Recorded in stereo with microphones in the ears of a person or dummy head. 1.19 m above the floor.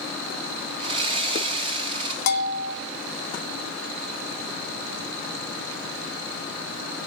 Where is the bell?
60° left (ahead or behind), 1.0 m.